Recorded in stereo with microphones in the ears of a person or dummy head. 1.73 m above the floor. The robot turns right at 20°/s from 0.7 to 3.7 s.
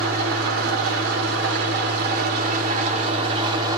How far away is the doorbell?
No doorbell in this recording.